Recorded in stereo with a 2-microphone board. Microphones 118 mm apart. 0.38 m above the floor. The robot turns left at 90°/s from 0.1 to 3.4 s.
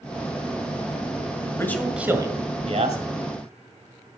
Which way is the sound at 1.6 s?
25° left.